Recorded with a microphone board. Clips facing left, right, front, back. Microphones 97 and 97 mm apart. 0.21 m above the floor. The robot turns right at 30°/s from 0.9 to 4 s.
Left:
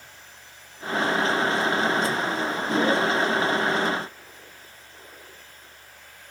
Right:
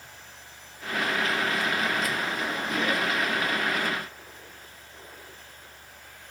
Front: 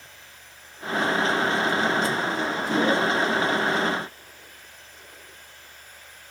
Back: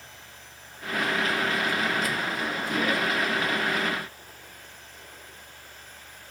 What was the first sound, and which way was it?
Only background noise.